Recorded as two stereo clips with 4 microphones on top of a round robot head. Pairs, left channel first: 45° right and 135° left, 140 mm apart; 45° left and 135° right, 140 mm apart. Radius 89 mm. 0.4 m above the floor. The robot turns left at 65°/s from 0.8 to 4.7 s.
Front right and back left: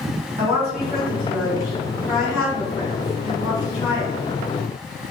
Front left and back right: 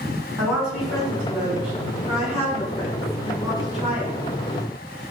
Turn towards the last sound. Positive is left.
turn(degrees=-115)